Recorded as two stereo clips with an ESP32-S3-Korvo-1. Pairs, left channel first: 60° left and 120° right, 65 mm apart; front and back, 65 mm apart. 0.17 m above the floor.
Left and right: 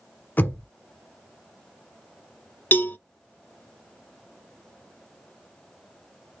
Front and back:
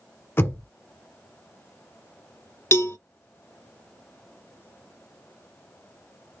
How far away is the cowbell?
About 0.6 m.